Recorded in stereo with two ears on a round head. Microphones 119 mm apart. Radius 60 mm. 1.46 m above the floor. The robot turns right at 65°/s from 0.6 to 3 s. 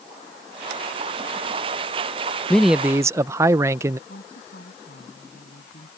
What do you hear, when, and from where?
2.5 s a man speaking: 170° left; by 4.0 s 155° right
4.1 s a woman speaking: 75° left (ahead or behind)